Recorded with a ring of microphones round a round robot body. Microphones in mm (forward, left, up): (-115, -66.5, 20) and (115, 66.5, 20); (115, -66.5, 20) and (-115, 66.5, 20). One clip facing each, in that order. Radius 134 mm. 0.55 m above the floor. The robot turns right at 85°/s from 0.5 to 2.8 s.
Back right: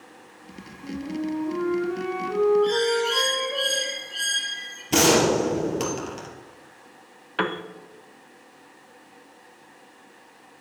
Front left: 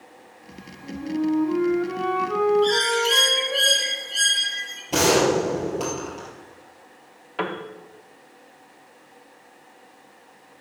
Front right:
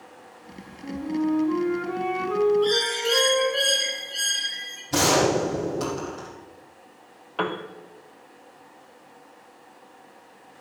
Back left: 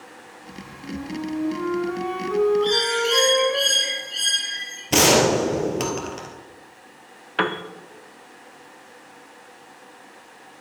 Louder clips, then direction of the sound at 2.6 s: Even, back left 2 dB; 45° left.